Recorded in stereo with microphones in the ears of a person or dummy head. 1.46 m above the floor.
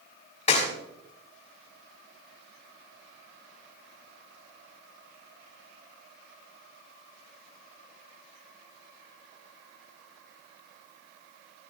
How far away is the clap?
About 4.5 m.